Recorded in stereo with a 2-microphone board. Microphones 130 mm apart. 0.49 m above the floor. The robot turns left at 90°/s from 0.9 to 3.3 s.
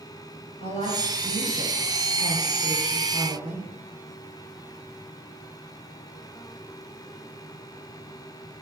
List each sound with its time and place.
0.6 s a woman speaking: 120° left, 9 m; by 3.7 s 95° right, 9 m